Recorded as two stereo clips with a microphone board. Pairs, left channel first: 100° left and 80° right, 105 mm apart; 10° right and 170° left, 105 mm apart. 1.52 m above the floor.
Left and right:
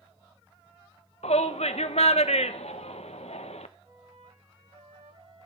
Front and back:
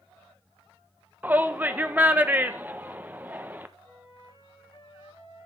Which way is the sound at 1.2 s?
95° left.